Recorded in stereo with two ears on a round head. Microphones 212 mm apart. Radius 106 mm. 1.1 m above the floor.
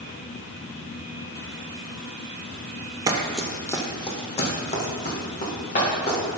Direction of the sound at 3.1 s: 15° right (ahead or behind).